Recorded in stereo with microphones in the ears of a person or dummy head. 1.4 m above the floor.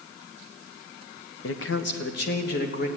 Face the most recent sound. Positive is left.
turn(degrees=55)  # may be behind; listen again after turning